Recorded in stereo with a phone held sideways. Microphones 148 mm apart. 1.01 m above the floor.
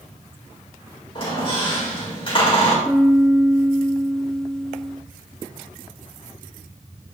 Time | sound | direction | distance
1.1 | a squeak | 35° left (ahead or behind) | 3 m
2.9 | a piano | 5° left (ahead or behind) | 0.5 m